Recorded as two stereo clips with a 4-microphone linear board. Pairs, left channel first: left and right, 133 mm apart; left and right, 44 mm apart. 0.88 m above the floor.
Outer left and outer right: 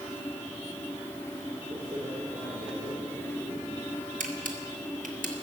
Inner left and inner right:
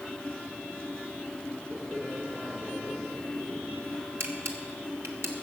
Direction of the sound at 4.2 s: 80° right.